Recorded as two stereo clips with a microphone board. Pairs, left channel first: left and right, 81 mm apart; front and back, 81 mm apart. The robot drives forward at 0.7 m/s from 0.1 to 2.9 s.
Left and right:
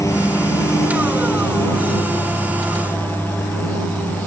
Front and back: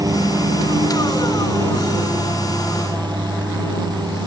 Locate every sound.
0.0 s a lawn mower: 140° left; by 4.3 s 160° left